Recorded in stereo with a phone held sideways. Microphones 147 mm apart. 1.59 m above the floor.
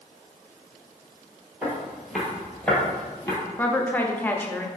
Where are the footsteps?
10° right (ahead or behind), 1.6 m; by 3.4 s 20° left (ahead or behind), 1.6 m.